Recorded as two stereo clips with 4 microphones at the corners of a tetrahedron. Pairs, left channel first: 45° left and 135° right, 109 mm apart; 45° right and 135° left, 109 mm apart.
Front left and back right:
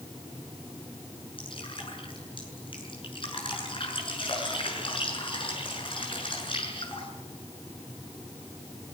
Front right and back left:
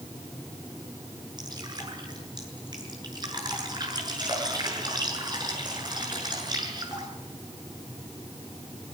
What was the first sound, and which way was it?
Dripping, 85° left.